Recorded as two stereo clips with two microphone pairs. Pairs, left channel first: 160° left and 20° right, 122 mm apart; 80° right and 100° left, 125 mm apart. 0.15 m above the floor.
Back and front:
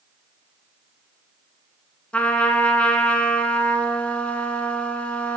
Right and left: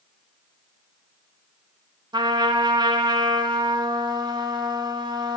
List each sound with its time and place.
2.1 s a trumpet: 90° left, 0.6 m